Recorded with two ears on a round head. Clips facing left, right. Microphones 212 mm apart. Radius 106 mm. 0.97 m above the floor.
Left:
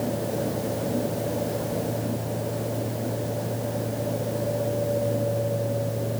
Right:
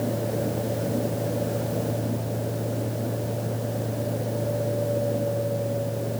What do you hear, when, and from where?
Only background noise.